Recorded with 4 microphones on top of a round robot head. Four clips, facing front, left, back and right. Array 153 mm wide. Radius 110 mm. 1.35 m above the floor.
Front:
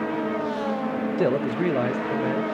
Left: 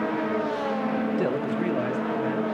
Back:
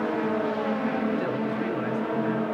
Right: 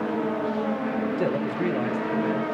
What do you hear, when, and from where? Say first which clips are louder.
1.2 s a man speaking: even, front 5 dB; 10° left, 1.3 m